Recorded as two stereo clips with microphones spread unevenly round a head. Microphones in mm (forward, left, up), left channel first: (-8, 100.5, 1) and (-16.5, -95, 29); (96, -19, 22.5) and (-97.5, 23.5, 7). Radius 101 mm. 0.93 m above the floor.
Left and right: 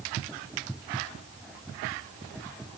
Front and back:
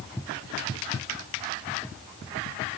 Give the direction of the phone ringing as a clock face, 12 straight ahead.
I don't hear a phone ringing.